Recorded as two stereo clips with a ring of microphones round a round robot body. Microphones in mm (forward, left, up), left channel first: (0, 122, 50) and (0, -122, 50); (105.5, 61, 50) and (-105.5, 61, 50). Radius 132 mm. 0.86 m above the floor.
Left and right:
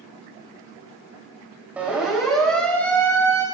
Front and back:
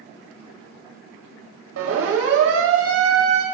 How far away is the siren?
About 5.5 m.